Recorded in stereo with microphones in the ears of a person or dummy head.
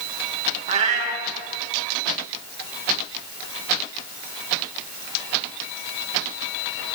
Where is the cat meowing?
40° right (ahead or behind), 1.2 m.